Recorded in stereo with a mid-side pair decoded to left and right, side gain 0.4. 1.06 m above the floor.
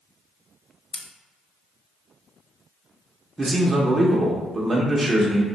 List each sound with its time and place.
0.9 s scissors: 25° left, 0.7 m
3.4 s a man speaking: 30° right, 0.6 m